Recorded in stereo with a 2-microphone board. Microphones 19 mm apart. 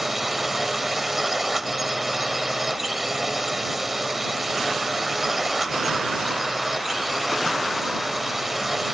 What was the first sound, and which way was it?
A drone, 15° right (ahead or behind).